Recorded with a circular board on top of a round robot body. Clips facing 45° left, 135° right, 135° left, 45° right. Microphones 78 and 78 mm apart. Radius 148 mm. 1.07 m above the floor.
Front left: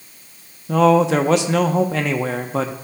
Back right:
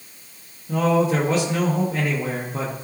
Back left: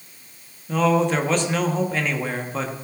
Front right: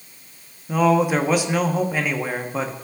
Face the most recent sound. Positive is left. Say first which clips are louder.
# front left 5 dB, front right 2 dB
turn(degrees=35)